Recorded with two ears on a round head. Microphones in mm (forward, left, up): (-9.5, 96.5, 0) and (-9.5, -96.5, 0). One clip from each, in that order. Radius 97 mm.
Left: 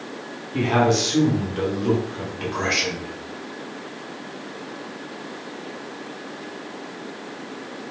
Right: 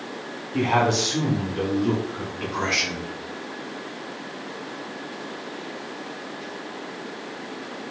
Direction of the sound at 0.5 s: 5° right (ahead or behind).